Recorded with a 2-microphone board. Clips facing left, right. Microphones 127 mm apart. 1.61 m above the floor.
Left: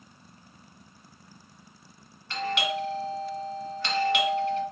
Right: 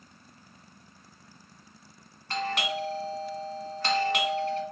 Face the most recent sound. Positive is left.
turn(degrees=-45)  # may be behind; listen again after turning